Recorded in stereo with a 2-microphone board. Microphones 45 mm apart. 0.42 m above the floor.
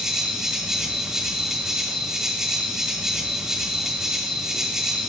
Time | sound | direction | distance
0.0 | an insect | 10° right (ahead or behind) | 1.9 m